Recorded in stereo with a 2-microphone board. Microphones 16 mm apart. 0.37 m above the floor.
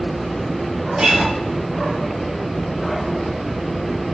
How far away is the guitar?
About 0.8 m.